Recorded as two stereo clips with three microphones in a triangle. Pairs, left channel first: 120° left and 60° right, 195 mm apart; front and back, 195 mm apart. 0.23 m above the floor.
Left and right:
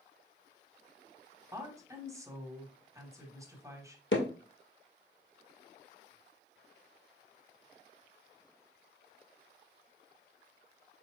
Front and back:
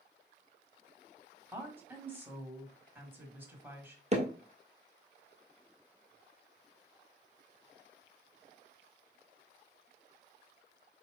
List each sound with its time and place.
1.5 s a woman speaking: 110° right, 1.2 m
4.1 s hammering: 130° left, 1.2 m